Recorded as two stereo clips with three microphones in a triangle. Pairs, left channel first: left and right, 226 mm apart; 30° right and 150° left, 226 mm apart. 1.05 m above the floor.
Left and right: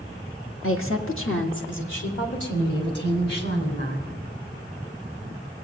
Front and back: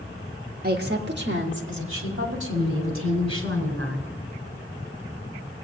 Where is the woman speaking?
105° left, 1.3 m; by 4.1 s 130° left, 4 m.